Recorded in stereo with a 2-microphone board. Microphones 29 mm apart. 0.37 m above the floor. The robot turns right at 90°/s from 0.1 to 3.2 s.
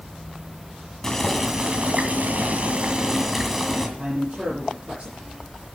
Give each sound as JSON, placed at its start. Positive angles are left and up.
{"t": 1.0, "sound": "boiling", "azimuth_deg": 155, "distance_m": 2.0}
{"t": 4.0, "sound": "a man speaking", "side_deg": -40, "distance_m": 6.5}